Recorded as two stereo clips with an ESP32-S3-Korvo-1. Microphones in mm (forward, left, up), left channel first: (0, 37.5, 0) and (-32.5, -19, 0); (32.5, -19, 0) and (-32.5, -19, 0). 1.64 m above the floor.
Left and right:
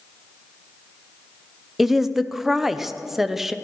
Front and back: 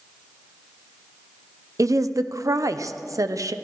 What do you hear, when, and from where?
1.8 s a woman speaking: 155° left, 0.7 m